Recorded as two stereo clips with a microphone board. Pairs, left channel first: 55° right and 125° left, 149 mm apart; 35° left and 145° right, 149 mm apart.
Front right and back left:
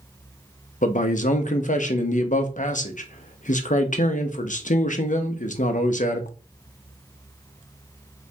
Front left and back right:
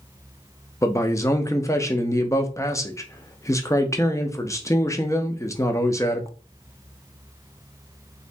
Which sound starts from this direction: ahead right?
A man speaking, at 0.8 s.